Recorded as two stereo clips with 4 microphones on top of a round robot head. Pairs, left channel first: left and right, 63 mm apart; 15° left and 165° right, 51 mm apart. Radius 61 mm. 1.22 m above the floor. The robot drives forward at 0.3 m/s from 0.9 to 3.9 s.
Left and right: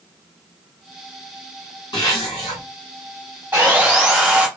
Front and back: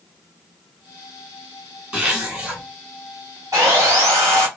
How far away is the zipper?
About 1.6 m.